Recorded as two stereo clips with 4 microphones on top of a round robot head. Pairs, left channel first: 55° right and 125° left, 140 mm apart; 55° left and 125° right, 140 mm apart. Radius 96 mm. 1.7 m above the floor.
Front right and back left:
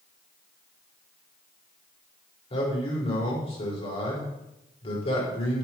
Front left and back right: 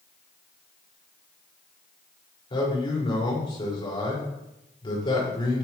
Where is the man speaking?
5° right, 5.5 m.